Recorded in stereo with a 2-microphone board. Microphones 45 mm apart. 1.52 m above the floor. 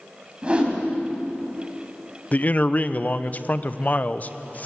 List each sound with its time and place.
0.4 s a whoosh: 25° right (ahead or behind), 4 m
2.3 s a man speaking: 35° left (ahead or behind), 0.7 m